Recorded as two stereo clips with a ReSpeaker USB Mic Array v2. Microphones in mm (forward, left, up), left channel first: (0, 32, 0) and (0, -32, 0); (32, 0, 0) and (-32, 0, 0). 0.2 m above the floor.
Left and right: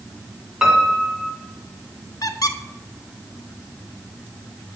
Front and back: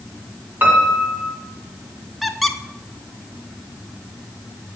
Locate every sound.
0.6 s a piano: 160° right, 1.8 m
2.2 s a squeak: 90° left, 0.5 m